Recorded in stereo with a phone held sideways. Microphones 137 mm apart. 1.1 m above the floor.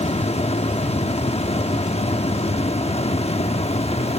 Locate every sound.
0.0 s a fan: 50° left (ahead or behind), 1.0 m